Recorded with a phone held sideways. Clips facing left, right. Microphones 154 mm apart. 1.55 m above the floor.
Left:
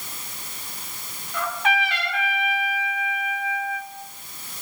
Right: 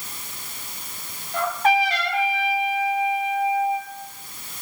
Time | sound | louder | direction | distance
1.3 | a trumpet | right 5 dB | 40° right (ahead or behind) | 2 m